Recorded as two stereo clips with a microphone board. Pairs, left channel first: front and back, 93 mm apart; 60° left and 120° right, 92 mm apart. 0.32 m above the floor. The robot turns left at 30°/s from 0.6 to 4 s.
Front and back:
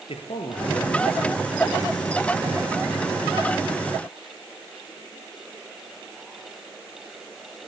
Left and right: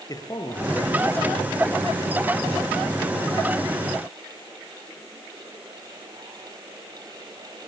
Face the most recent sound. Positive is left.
turn(degrees=-90)